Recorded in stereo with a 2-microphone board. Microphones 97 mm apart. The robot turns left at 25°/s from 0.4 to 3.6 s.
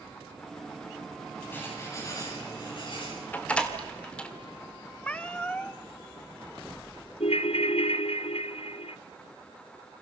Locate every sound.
1.5 s writing: 160° left, 9.5 m; by 3.1 s 120° left, 9.5 m
3.3 s a door slam: 15° left (ahead or behind), 2.5 m; by 4.3 s 10° left (ahead or behind), 2.5 m
5.0 s a cat meowing: 10° left (ahead or behind), 1.3 m
7.2 s a ringtone: 85° left, 0.8 m